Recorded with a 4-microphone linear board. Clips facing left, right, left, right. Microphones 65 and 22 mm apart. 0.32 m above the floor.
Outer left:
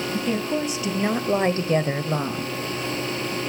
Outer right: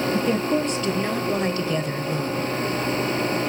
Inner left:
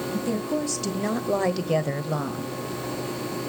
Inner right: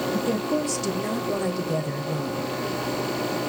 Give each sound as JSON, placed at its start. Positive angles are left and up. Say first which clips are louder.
{"t": 0.1, "sound": "a woman speaking", "louder": "outer right 1 dB, even", "side_deg": -5, "distance_m": 1.8}